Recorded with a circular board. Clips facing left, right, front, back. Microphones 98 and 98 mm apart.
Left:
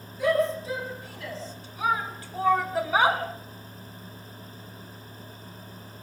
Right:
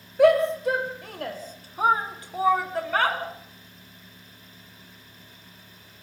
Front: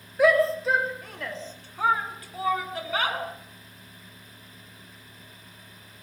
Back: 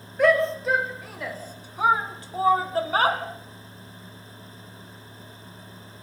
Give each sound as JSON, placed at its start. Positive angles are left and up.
{"t": 0.2, "sound": "a shout", "azimuth_deg": -85, "distance_m": 3.0}